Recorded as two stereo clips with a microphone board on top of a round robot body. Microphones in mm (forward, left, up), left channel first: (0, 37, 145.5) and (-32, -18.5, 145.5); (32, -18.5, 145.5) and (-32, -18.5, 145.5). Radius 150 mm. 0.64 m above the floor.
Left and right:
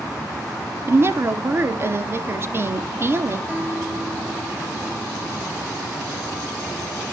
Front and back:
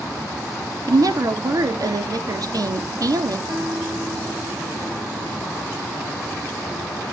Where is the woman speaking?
170° right, 2.0 m.